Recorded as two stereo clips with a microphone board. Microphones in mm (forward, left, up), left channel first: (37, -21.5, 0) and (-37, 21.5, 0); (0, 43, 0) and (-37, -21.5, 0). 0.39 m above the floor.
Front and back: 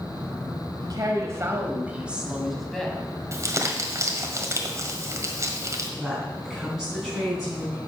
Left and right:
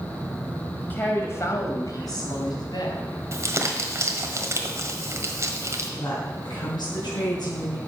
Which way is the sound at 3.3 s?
165° right.